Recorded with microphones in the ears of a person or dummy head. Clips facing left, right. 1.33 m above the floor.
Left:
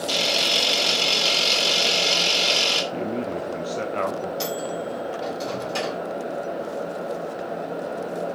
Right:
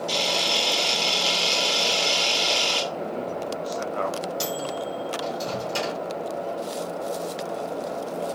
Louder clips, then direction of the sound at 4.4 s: Left 1 dB; 15° right (ahead or behind).